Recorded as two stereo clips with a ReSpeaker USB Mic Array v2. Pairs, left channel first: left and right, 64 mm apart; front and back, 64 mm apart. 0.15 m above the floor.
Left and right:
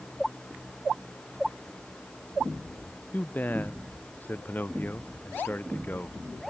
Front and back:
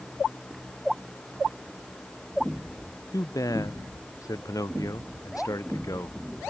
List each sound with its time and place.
3.1 s a man speaking: 25° left